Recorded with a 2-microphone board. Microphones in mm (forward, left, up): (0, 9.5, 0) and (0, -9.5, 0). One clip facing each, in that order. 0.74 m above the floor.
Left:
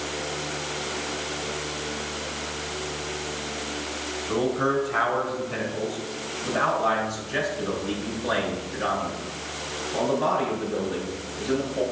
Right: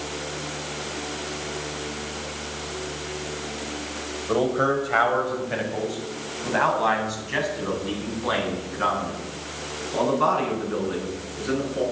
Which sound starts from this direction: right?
A man speaking, at 4.3 s.